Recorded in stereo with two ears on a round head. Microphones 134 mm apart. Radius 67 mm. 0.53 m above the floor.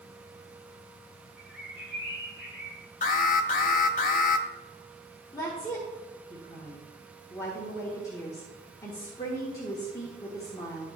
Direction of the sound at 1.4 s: 5° right (ahead or behind).